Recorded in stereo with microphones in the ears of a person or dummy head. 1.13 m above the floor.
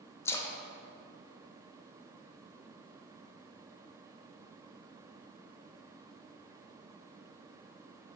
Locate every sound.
0.2 s a splash: 15° left (ahead or behind), 0.8 m